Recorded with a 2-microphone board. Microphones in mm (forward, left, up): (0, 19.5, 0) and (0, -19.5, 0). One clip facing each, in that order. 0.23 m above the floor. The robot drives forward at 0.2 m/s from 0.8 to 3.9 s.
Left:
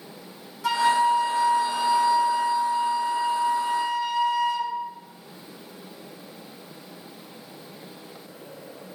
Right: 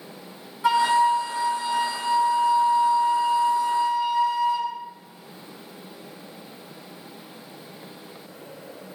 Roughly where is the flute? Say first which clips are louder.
Right 2 dB; right.